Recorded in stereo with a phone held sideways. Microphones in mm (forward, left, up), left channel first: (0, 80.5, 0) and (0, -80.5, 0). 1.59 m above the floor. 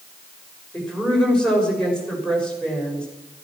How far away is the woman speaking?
About 6.5 m.